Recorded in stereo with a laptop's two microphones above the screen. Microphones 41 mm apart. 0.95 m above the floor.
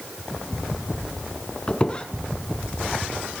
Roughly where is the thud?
No thud in this recording.